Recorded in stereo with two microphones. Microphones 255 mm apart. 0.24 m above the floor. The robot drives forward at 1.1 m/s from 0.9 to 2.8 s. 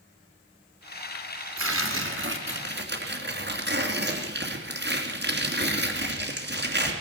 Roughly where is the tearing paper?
Right.